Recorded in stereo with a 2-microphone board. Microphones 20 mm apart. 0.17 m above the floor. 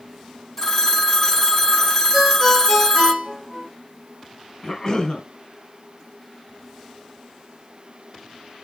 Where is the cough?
25° left (ahead or behind), 2.0 m.